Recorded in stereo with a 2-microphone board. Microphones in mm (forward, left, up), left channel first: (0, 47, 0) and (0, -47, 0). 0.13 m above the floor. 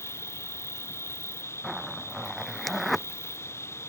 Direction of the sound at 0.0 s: 25° left (ahead or behind).